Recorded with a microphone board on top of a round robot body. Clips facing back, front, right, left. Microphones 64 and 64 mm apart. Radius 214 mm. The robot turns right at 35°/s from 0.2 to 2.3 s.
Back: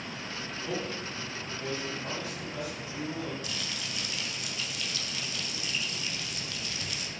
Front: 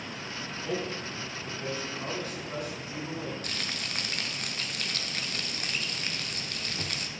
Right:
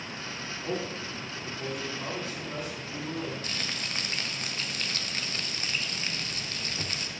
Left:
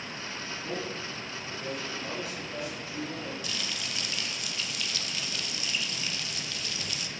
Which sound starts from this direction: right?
A man speaking, at 0.6 s.